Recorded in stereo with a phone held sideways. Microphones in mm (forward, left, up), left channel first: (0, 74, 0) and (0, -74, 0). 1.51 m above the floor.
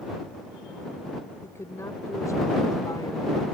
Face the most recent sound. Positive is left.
turn(degrees=30)  # may be behind; listen again after turning